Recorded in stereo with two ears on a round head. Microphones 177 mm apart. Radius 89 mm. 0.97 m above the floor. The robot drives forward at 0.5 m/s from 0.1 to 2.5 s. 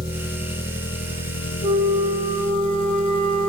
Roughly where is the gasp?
No gasp in this recording.